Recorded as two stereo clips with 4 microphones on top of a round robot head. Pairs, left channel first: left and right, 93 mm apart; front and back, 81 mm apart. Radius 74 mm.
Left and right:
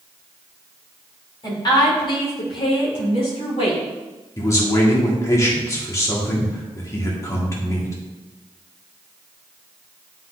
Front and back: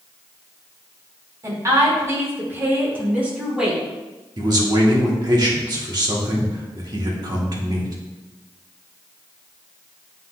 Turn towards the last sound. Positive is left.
turn(degrees=145)